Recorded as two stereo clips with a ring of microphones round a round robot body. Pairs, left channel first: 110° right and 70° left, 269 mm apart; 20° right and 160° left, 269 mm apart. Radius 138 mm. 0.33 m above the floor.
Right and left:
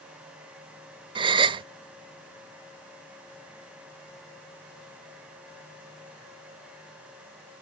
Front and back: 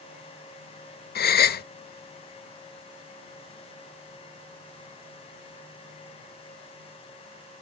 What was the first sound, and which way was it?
A gasp, 5° left.